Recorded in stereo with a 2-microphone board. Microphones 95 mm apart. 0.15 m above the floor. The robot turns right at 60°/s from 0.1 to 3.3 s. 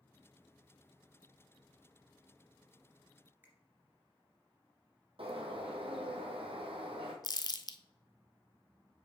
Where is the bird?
75° right (ahead or behind), 1.6 m.